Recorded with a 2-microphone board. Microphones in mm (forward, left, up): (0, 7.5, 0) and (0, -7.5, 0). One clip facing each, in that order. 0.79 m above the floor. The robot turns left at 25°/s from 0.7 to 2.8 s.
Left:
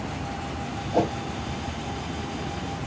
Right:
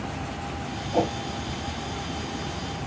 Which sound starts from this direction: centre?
A whoosh, at 0.9 s.